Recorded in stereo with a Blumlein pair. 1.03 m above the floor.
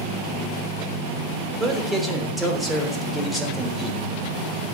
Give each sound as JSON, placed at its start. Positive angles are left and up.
{"t": 1.6, "sound": "a man speaking", "azimuth_deg": -10, "distance_m": 3.0}